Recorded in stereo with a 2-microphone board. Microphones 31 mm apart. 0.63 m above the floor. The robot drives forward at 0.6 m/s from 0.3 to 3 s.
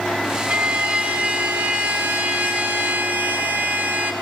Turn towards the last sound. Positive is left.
turn(degrees=-85)